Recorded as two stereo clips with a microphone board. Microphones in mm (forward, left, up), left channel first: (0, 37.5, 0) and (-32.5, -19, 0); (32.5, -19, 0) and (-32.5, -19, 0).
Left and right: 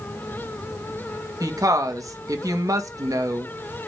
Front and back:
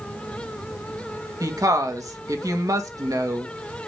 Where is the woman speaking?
150° right, 1.9 m.